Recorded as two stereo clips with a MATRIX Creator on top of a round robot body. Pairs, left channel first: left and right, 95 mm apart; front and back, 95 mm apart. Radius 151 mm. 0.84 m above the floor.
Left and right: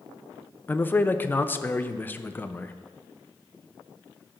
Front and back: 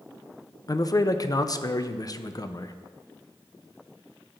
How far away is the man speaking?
About 0.7 m.